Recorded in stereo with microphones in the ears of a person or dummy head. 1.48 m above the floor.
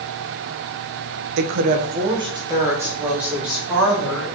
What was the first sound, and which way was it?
A woman speaking, 65° right (ahead or behind).